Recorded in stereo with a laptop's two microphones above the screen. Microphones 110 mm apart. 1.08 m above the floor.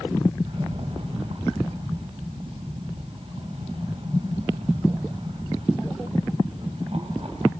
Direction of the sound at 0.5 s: 55° right (ahead or behind).